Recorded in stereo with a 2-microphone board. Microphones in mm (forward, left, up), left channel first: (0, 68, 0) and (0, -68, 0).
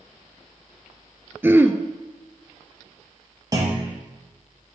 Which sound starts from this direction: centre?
Throat clearing, at 1.4 s.